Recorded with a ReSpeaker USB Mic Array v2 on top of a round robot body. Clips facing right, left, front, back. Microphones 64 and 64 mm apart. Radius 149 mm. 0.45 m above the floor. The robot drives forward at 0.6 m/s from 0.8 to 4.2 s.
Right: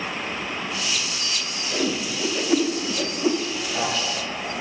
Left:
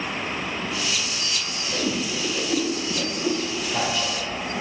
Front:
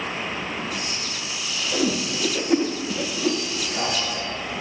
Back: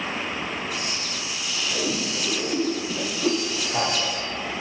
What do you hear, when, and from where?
1.7 s a whoosh: 25° right, 1.2 m; by 3.4 s 110° right, 0.9 m
3.6 s a man speaking: 175° left, 2 m